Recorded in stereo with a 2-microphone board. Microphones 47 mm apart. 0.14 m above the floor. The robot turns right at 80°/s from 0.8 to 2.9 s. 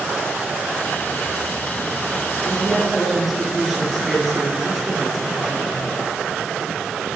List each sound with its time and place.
2.4 s a woman speaking: 145° left, 2.5 m; by 5.8 s straight behind, 2.5 m